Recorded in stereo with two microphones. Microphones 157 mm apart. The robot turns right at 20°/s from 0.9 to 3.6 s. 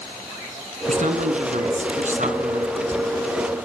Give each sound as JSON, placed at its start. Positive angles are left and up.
{"t": 0.9, "sound": "a man speaking", "azimuth_deg": -105, "distance_m": 1.8}